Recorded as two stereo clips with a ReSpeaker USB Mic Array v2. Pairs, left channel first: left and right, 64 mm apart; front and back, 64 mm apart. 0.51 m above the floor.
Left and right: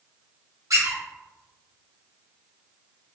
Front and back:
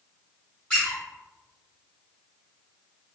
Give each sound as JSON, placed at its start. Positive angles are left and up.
{"t": 0.7, "sound": "a squeak", "azimuth_deg": -70, "distance_m": 1.8}